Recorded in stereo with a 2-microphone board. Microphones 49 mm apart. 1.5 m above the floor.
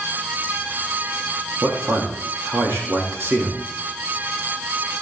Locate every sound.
1.6 s a man speaking: 65° right (ahead or behind), 3 m